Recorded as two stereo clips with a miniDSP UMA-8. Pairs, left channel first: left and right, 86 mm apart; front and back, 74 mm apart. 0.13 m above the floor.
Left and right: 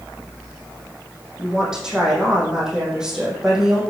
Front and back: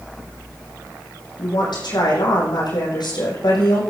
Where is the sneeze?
No sneeze in this recording.